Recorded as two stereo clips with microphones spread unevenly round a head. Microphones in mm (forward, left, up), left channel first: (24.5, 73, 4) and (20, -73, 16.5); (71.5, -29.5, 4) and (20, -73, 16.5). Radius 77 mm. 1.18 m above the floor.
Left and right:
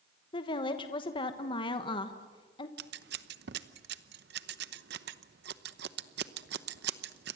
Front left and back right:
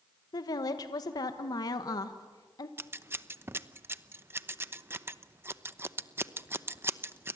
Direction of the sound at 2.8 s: 80° right.